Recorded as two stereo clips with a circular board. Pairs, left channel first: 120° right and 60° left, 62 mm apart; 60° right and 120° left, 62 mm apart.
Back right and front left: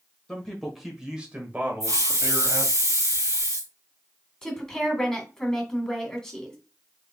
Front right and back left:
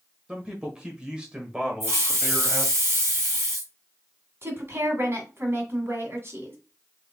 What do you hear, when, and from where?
0.3 s a man speaking: 175° left, 1.4 m; by 2.8 s 45° left, 2 m
1.8 s a hiss: 80° left, 3 m
4.4 s a woman speaking: 160° left, 2 m